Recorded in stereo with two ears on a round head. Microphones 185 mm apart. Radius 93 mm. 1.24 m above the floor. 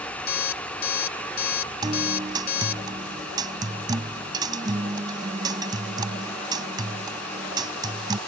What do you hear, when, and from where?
0.3 s an alarm clock: 50° left (ahead or behind)
1.8 s a guitar: 20° right (ahead or behind)